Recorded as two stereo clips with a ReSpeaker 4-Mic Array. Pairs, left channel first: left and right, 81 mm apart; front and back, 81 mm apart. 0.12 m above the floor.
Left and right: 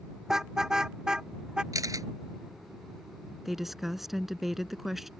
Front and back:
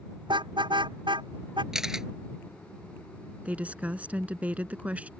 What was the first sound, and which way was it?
A car horn, 175° right.